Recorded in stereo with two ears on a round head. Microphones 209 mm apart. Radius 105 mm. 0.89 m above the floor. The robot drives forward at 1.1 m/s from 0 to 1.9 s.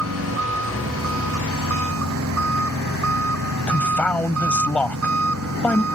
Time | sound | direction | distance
0.0 | an engine running | 60° right (ahead or behind) | ?
3.7 | a man speaking | 5° left (ahead or behind) | ?